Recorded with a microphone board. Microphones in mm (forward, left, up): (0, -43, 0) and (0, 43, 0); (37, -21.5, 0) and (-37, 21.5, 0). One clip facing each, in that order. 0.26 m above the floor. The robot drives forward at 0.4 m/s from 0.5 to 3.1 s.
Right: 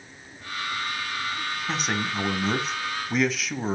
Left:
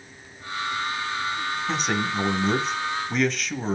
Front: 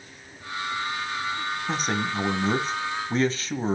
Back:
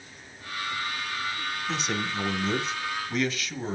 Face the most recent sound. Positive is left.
turn(degrees=-5)